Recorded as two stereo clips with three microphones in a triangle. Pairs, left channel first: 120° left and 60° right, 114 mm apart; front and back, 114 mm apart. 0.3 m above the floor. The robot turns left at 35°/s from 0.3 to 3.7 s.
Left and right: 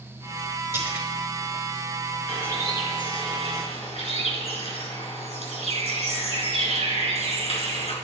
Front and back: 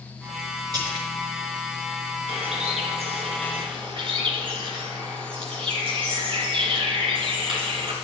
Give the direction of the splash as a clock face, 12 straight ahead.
4 o'clock.